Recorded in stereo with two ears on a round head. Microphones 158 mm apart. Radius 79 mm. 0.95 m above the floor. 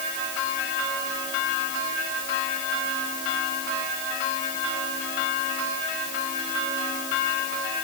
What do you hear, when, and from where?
Only background noise.